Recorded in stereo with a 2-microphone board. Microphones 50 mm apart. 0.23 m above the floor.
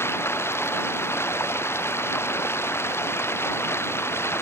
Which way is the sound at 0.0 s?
55° left (ahead or behind).